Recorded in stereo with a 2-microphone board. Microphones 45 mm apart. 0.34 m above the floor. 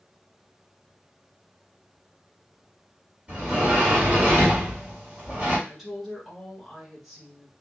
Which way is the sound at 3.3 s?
20° right (ahead or behind).